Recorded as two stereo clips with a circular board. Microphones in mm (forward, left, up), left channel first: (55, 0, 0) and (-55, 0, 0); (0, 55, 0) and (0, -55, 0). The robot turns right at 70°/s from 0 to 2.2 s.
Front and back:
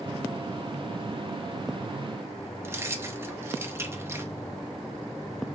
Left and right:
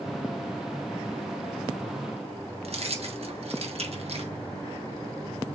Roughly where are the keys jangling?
Behind right.